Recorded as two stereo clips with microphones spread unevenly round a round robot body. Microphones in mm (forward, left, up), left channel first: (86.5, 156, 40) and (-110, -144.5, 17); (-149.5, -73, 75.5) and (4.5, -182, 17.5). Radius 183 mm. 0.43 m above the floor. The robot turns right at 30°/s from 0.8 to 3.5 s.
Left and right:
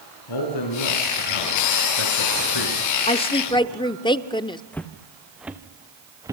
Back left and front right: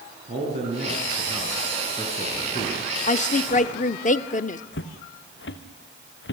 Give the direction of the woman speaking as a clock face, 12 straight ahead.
8 o'clock.